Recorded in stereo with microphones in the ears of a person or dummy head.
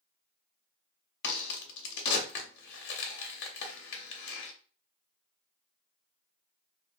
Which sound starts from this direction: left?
A crack, at 1.2 s.